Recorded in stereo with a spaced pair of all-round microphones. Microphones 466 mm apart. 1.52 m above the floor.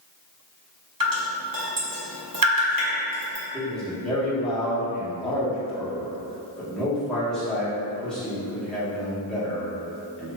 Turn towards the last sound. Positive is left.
turn(degrees=0)  # may be behind; listen again after turning